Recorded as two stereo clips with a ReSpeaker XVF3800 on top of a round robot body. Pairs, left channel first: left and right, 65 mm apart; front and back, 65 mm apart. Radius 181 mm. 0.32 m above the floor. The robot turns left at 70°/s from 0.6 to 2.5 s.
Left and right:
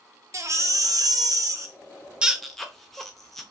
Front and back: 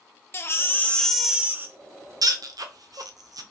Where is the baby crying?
50° right, 0.9 m; by 3.4 s 175° left, 0.9 m.